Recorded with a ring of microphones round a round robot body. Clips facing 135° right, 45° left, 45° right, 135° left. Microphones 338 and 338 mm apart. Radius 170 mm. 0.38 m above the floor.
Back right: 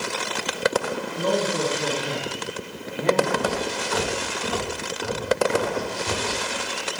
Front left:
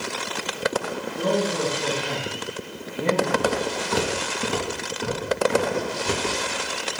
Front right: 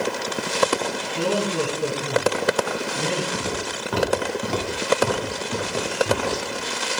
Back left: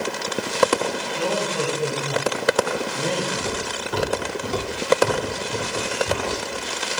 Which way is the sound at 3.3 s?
10° right.